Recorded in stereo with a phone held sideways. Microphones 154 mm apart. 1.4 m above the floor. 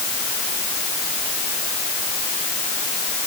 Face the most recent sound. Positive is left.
No sound to turn to.